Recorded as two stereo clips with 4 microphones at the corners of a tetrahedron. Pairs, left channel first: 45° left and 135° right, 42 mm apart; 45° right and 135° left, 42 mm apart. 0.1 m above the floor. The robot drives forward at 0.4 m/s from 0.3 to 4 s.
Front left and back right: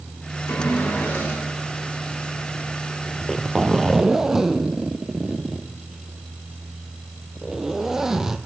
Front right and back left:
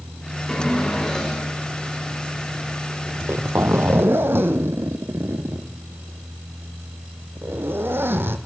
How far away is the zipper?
About 0.5 m.